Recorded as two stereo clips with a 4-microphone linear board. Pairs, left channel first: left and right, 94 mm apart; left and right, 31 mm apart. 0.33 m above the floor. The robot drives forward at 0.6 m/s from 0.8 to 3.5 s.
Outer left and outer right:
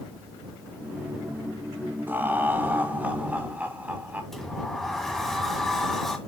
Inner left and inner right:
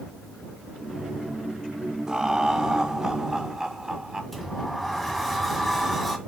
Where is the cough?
No cough in this recording.